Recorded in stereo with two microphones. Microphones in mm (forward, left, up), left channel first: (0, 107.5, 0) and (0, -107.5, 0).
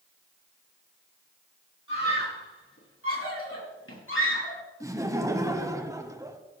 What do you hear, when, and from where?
1.9 s a scream: 75° left (ahead or behind), 7 m; by 4.6 s 70° left (ahead or behind), 4 m
4.8 s laughter: 15° right (ahead or behind), 1.2 m